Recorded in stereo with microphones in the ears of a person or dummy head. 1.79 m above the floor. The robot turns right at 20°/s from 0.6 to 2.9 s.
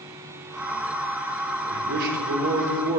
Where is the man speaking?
60° right (ahead or behind), 2.0 m; by 3.0 s 35° right (ahead or behind), 2.0 m.